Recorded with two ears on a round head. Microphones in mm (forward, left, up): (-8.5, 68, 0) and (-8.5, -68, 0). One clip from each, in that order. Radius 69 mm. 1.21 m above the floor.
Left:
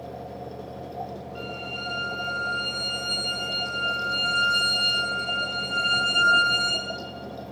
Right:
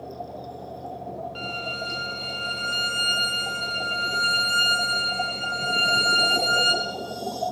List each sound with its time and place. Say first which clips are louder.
1.4 s a violin: right 3 dB; 45° right (ahead or behind), 1.9 m